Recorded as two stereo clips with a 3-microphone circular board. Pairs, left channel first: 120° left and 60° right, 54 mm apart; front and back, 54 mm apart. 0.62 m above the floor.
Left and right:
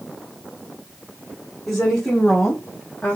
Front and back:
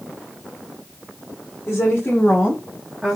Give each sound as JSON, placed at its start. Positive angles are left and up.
{"t": 1.7, "sound": "a woman speaking", "azimuth_deg": 35, "distance_m": 1.7}